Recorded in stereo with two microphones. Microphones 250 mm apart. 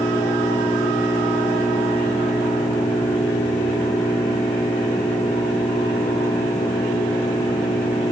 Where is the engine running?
15° left (ahead or behind).